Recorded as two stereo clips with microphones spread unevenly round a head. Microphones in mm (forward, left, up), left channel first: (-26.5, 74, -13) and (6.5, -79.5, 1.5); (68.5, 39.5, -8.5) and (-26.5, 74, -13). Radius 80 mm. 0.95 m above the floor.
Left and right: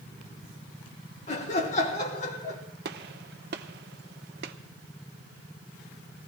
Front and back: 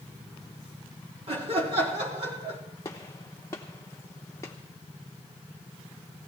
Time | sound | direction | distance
1.3 | laughter | 145° left | 3 m
2.9 | a gunshot | 90° right | 0.8 m